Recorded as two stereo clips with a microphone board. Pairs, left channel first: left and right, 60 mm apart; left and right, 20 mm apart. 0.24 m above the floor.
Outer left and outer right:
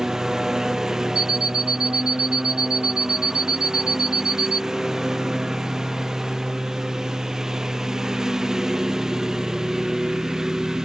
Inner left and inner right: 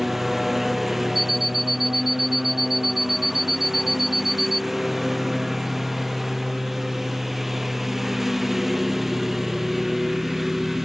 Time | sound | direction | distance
0.0 | a lawn mower | 10° right (ahead or behind) | ?
1.1 | an alarm clock | 10° right (ahead or behind) | ?